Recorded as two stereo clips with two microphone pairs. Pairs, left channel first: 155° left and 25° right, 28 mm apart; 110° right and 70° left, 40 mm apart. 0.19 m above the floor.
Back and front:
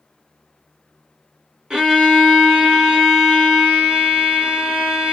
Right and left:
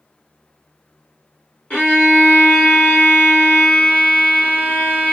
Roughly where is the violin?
Right.